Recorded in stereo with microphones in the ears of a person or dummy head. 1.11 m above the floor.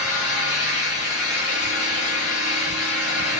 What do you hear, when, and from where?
0.0 s an engine running: 45° left (ahead or behind), 1.4 m